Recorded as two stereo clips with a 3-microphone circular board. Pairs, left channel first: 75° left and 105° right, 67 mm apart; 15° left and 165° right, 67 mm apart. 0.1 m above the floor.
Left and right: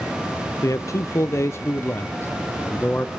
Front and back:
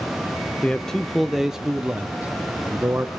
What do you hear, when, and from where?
0.6 s a man speaking: 85° left, 2 m; by 3.1 s 135° left, 4 m